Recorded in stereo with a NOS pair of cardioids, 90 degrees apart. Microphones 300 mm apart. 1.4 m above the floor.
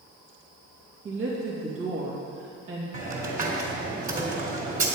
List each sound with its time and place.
1.1 s a woman speaking: 45° right, 2.5 m
2.9 s a hiss: 25° right, 3.5 m